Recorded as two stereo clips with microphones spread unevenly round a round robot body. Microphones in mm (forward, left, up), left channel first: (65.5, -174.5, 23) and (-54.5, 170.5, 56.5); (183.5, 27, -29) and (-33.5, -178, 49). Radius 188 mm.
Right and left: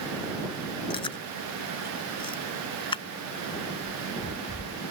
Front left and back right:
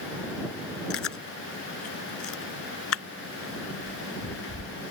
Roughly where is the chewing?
Ahead.